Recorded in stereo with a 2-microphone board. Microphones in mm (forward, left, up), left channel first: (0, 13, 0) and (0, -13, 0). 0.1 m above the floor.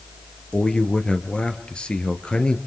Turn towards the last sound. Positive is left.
turn(degrees=40)  # may be behind; listen again after turning